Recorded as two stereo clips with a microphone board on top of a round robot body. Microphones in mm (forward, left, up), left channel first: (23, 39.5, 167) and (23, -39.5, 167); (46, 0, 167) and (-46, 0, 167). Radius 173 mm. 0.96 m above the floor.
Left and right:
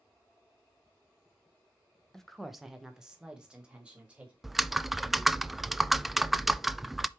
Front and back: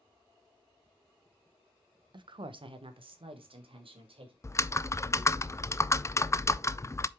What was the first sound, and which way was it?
A woman speaking, 175° left.